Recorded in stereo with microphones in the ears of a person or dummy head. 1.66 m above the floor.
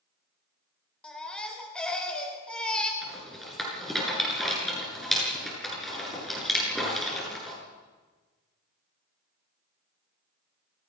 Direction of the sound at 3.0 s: Centre (ahead or behind).